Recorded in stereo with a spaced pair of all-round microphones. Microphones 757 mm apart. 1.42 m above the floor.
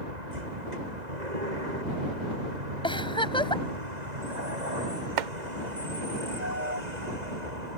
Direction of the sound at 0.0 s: 65° right (ahead or behind).